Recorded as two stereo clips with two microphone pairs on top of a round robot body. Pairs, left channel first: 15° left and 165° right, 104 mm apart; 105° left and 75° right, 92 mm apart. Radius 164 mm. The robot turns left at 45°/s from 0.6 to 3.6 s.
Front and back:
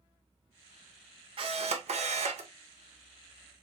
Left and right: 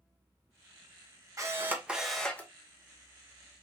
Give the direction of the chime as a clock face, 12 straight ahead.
No chime in this recording.